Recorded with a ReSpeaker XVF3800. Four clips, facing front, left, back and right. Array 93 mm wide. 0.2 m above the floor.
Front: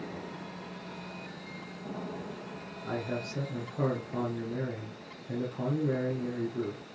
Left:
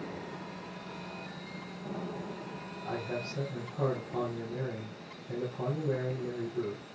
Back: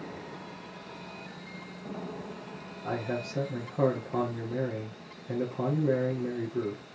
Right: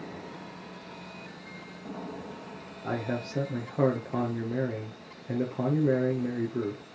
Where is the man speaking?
105° right, 3.5 m.